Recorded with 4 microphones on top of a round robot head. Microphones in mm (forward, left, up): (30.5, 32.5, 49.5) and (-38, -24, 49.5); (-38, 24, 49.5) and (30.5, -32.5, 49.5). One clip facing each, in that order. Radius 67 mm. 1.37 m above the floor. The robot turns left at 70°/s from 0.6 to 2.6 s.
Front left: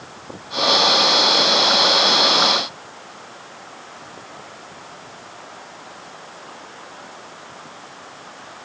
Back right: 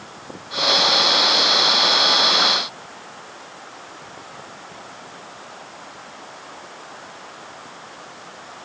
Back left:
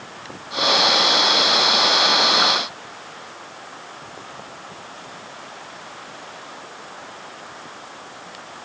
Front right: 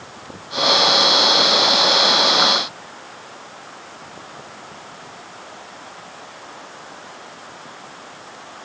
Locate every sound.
Only background noise.